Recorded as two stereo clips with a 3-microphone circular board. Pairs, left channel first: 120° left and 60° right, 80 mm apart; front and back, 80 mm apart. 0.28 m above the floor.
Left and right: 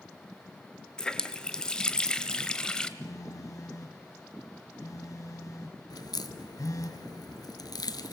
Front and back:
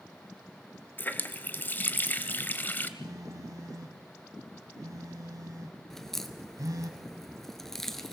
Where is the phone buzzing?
150° left, 1.4 m.